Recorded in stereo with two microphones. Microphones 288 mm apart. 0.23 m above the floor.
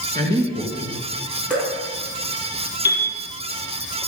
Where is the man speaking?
15° left (ahead or behind), 2.5 m.